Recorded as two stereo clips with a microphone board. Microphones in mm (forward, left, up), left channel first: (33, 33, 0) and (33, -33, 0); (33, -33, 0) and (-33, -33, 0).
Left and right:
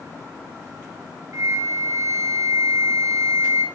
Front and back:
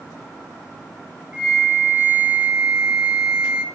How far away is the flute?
About 1.1 m.